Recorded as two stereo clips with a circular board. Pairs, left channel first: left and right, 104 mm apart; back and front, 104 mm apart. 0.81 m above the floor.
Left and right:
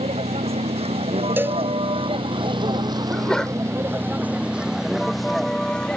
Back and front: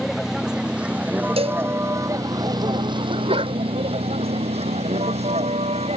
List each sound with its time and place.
0.0 s a vehicle: 90° right; by 6.0 s 10° left
1.4 s a cowbell: 20° right
3.1 s a sneeze: 5° left